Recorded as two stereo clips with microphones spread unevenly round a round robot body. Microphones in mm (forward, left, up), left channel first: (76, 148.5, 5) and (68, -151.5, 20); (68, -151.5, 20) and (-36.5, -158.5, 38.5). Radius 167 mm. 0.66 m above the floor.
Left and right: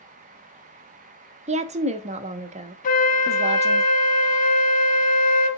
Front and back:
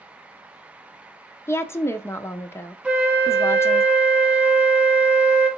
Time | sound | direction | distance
1.5 | a woman speaking | 30° right | 0.6 m
2.8 | a flute | 90° left | 0.6 m